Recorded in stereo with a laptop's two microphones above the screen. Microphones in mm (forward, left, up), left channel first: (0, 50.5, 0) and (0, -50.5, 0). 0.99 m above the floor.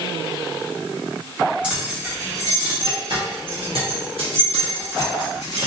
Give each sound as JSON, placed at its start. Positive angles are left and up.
{"t": 1.6, "sound": "keys jangling", "side_deg": -15, "distance_m": 1.1}